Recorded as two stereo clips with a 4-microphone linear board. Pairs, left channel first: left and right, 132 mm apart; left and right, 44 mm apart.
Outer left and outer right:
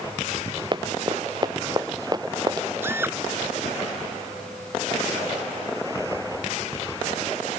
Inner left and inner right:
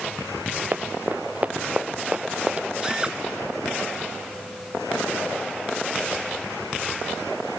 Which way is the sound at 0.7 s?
35° right (ahead or behind).